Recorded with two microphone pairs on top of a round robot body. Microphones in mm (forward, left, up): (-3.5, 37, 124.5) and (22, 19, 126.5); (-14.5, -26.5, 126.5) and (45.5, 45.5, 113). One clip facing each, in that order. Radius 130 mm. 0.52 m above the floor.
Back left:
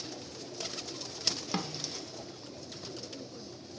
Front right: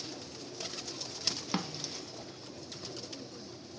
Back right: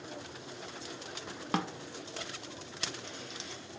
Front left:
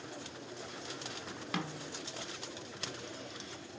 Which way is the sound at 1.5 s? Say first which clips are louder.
Even, back right 6 dB; 100° right.